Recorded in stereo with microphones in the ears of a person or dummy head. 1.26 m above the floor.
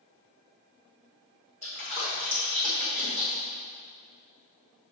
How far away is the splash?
About 1.8 m.